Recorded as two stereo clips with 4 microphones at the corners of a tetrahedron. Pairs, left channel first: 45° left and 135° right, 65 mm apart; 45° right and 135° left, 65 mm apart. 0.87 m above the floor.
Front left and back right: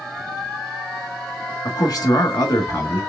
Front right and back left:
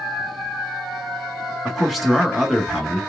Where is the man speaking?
45° left, 1.4 m.